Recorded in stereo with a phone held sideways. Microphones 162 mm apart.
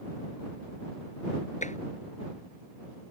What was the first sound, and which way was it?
Tapping, 50° left (ahead or behind).